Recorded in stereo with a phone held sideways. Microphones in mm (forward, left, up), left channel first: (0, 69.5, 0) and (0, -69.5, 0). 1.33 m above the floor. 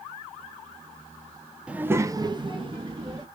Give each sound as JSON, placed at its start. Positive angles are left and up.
{"t": 1.7, "sound": "a child speaking", "side_deg": -5, "distance_m": 0.6}